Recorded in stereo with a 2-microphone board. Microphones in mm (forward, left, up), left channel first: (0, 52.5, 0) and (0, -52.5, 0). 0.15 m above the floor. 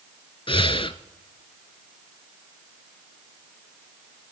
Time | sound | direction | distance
0.5 | breathing | 55° left (ahead or behind) | 0.6 m